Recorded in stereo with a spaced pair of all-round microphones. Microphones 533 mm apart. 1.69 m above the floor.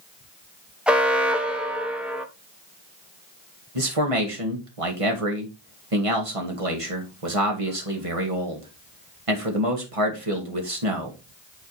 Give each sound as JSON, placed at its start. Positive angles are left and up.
{"t": 0.9, "sound": "an alarm", "side_deg": 0, "distance_m": 1.3}
{"t": 3.8, "sound": "a man speaking", "side_deg": -80, "distance_m": 1.9}